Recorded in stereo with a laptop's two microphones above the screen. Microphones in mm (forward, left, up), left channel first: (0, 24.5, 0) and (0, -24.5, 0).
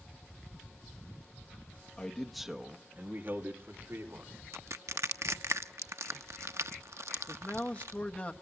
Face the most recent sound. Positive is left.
turn(degrees=30)  # may be behind; listen again after turning